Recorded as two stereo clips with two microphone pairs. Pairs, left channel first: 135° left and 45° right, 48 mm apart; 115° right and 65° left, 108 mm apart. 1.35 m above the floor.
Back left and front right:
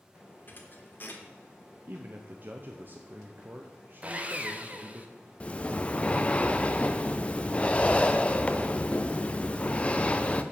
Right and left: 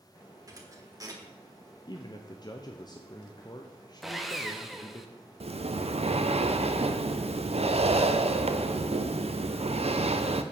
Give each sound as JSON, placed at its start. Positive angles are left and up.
{"t": 0.5, "sound": "a thud", "azimuth_deg": 110, "distance_m": 1.2}
{"t": 1.9, "sound": "a man speaking", "azimuth_deg": -80, "distance_m": 0.6}
{"t": 4.0, "sound": "sawing", "azimuth_deg": -25, "distance_m": 0.7}
{"t": 5.4, "sound": "breathing", "azimuth_deg": 75, "distance_m": 0.5}